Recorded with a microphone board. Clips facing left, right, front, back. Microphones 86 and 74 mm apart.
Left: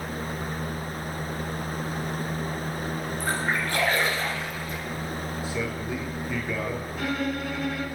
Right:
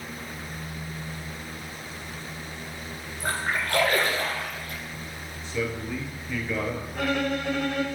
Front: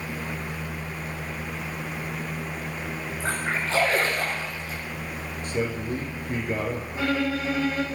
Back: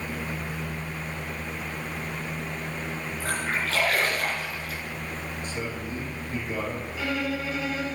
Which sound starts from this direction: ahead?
A man speaking, at 5.4 s.